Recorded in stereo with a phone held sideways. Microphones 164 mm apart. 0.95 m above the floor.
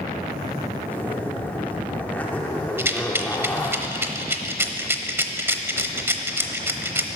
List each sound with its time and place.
0.9 s a zipper: 10° left (ahead or behind), 1.2 m
2.8 s a rattle: 15° right (ahead or behind), 0.8 m